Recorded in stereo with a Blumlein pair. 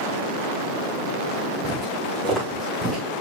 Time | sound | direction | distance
1.6 | footsteps | 10° right | 5 m